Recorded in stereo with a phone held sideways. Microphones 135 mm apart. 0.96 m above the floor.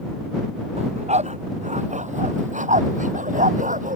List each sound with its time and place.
0.8 s a dog barking: 55° right (ahead or behind); by 4.0 s 75° right (ahead or behind)